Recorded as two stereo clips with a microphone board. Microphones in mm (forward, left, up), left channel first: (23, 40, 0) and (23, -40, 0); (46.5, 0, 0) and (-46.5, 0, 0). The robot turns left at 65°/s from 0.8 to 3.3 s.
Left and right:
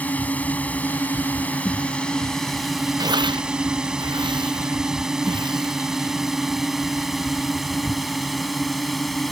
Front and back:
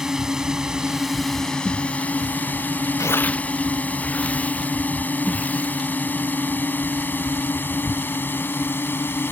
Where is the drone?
105° left; by 9.3 s straight ahead.